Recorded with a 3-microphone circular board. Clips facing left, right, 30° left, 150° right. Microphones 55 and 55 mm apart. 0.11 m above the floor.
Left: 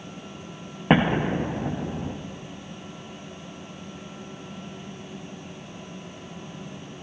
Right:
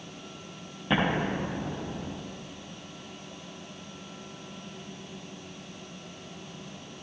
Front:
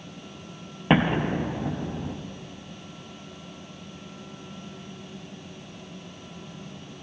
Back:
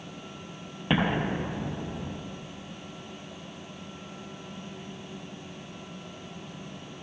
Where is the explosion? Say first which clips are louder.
Left 6 dB, front 4 dB; 80° left, 1.8 m.